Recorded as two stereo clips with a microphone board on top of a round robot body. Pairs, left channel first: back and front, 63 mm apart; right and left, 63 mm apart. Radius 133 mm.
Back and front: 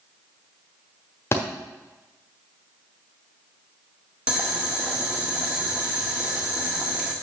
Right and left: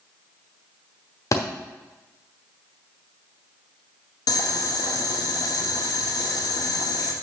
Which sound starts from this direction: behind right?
A thud, at 1.3 s.